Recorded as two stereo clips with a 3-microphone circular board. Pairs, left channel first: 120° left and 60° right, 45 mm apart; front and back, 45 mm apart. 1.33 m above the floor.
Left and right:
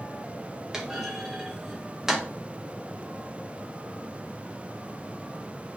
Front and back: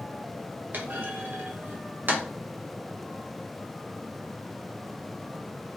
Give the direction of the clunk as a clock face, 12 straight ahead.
5 o'clock.